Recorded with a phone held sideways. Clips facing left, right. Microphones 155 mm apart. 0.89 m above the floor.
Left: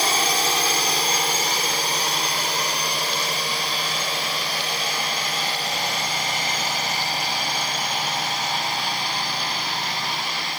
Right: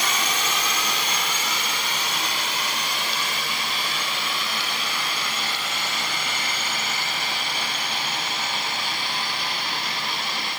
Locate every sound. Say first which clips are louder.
0.0 s a drone: left 4 dB; 35° left (ahead or behind)